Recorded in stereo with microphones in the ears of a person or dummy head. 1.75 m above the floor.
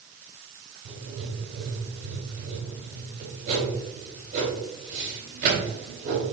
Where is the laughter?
I don't hear laughter.